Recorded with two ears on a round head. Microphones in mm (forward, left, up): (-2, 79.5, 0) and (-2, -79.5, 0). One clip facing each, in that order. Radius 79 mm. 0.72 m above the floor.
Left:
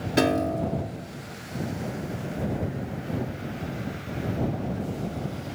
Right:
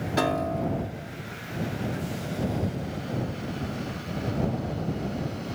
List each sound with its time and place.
0.2 s a piano: 30° left (ahead or behind)